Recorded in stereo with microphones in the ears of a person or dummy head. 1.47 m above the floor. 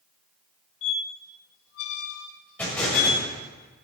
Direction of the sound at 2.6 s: 5° left (ahead or behind).